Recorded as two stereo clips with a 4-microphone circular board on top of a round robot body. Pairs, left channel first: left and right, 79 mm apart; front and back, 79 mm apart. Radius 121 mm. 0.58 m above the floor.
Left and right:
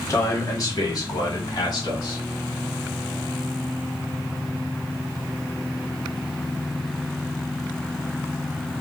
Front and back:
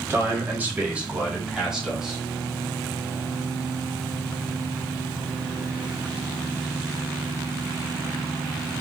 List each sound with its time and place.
0.1 s a man speaking: 125° left, 1.7 m; by 2.2 s 95° left, 2.5 m